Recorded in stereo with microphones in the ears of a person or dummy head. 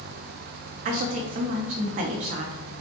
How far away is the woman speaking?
About 0.6 m.